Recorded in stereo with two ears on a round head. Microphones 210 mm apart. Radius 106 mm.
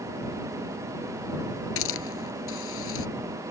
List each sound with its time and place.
1.8 s a hiss: 60° left (ahead or behind)